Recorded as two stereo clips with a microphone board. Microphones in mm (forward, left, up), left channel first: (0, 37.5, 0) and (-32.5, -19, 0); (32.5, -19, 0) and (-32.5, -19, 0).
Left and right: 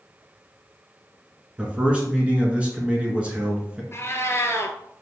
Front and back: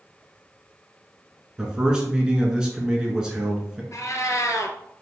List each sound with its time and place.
1.6 s a man speaking: 125° right, 1.1 m
3.9 s a cat meowing: 20° left, 0.6 m